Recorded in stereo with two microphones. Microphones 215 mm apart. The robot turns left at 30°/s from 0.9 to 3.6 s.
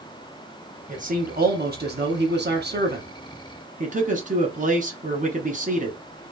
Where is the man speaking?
50° right, 1.0 m; by 6.0 s 130° right, 1.0 m.